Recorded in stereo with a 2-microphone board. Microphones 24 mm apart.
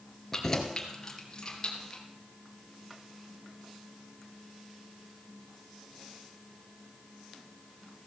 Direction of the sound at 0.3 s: 20° left (ahead or behind).